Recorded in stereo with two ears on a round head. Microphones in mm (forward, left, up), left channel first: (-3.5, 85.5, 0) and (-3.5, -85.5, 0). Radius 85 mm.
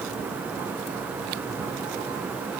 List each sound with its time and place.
Only background noise.